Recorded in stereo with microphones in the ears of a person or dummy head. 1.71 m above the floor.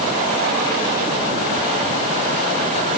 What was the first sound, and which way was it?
Only background noise.